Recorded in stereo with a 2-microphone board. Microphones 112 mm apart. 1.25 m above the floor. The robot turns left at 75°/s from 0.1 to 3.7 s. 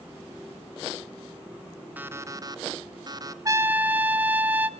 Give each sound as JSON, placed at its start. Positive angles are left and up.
{"t": 2.0, "sound": "an alarm clock", "azimuth_deg": -25, "distance_m": 0.7}
{"t": 3.5, "sound": "a trumpet", "side_deg": -35, "distance_m": 0.7}